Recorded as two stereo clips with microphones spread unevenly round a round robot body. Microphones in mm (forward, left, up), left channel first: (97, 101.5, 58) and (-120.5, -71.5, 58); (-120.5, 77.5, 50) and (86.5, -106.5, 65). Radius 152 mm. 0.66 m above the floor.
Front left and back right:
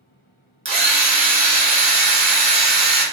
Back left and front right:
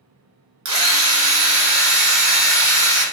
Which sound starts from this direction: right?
A drill, at 0.7 s.